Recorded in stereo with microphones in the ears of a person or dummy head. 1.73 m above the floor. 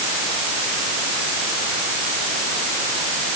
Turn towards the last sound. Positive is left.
No sound to turn to.